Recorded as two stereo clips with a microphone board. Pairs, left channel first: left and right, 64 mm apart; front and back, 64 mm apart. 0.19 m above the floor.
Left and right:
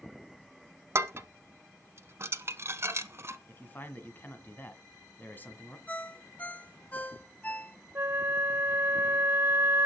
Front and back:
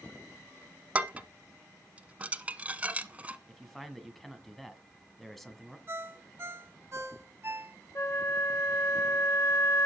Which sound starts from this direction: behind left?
A ringtone, at 5.9 s.